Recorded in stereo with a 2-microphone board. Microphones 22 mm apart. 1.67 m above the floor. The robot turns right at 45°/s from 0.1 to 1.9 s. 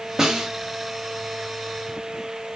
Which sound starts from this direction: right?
A snare drum, at 0.2 s.